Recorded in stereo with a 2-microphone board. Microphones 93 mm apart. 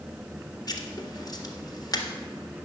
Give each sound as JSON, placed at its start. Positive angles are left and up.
{"t": 0.7, "sound": "writing", "side_deg": 40, "distance_m": 1.7}